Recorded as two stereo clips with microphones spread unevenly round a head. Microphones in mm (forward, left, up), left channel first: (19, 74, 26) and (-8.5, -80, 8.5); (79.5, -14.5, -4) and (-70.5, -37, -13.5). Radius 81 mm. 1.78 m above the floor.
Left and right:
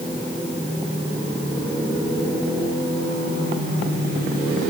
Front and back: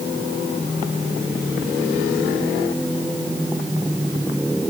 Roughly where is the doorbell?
I don't hear a doorbell.